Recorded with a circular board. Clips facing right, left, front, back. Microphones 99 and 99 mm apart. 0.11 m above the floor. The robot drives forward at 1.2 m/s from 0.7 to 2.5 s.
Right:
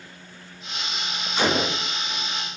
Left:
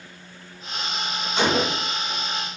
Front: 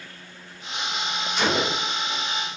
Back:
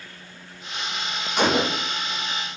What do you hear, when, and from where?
1.4 s a gunshot: 155° left, 2.5 m; by 1.9 s 160° left, 3 m